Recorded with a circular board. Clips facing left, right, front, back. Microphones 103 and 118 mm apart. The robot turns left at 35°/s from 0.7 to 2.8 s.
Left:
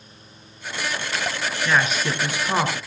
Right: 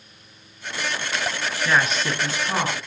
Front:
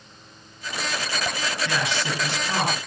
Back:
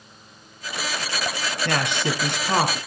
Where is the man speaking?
175° right, 3 m; by 2.8 s 145° left, 3 m.